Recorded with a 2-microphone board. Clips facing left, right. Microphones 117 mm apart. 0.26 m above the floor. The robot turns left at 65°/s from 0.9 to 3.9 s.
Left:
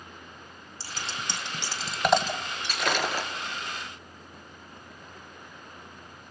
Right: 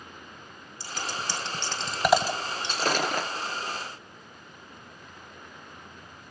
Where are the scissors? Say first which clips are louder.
Right 3 dB; 30° left (ahead or behind), 1.7 m; by 2.3 s 15° right (ahead or behind), 1.7 m.